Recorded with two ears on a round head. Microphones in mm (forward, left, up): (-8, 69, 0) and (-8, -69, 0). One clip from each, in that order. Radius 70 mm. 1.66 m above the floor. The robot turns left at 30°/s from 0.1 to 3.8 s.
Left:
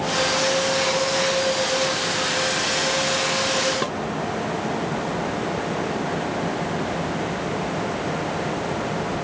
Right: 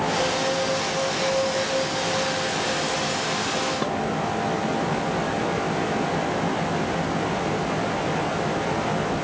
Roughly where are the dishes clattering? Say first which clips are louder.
Even; left.